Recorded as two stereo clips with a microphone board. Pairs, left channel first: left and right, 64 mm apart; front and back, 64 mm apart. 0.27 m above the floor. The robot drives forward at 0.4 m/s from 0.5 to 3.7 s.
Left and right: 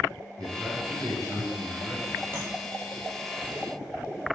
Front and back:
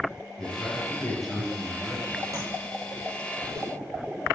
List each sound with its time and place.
0.4 s a man speaking: 85° right, 2.5 m; by 2.2 s 105° right, 2.5 m
2.3 s tapping: 145° right, 2 m